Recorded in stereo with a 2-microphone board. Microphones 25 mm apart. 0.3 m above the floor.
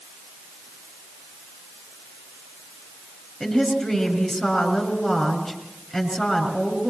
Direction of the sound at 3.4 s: 15° left (ahead or behind).